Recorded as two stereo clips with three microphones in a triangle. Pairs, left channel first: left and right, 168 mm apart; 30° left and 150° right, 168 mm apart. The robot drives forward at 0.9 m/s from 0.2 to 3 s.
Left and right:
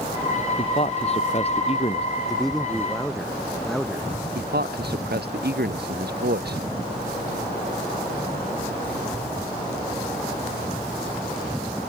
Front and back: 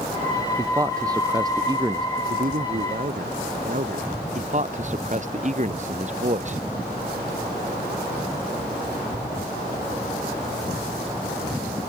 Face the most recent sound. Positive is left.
turn(degrees=-105)